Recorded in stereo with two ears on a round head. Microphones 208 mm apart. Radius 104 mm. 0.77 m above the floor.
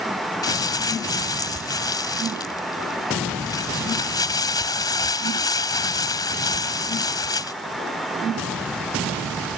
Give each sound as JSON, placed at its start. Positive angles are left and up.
{"t": 0.4, "sound": "crumpling", "side_deg": 15}